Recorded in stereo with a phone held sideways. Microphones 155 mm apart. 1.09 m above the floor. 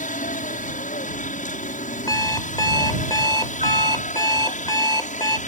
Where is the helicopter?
55° left (ahead or behind).